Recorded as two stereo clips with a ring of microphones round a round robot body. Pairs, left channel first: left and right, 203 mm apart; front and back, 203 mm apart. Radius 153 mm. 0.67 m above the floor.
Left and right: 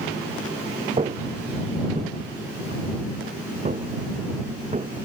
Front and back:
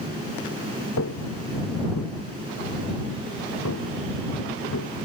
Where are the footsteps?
35° right.